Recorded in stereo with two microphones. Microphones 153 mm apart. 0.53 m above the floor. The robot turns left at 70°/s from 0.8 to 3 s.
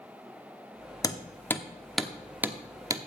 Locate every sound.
1.0 s hammering: 20° left (ahead or behind), 0.9 m; by 3.1 s 25° right (ahead or behind), 0.9 m